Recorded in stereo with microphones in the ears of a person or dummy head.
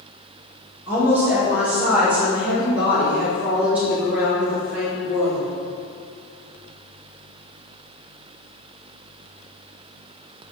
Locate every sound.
0.9 s a woman speaking: 10° right (ahead or behind), 2 m; by 5.5 s 5° right (ahead or behind), 4.5 m